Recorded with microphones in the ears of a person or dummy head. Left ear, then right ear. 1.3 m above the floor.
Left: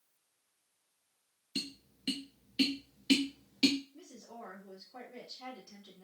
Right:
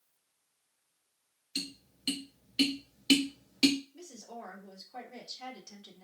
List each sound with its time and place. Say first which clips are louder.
1.6 s tapping: right 1 dB; 10° right (ahead or behind), 0.6 m
3.9 s a woman speaking: right 4 dB; 30° right (ahead or behind), 0.8 m